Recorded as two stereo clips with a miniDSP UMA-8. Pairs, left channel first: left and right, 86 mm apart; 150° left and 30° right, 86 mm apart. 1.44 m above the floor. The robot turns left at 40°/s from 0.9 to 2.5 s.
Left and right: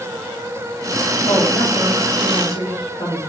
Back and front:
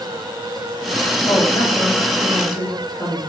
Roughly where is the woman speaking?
Behind left.